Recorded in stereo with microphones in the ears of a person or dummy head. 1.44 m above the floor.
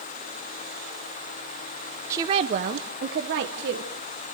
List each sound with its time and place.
2.1 s a woman speaking: 15° right (ahead or behind), 0.6 m; by 3.9 s 65° right (ahead or behind), 1.4 m